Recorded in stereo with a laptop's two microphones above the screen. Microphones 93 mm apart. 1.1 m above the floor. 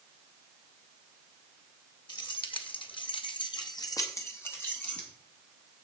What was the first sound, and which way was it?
Keys jangling, 60° left (ahead or behind).